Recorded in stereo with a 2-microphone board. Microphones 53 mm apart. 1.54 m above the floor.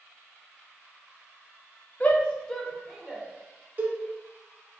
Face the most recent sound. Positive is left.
turn(degrees=-35)  # may be behind; listen again after turning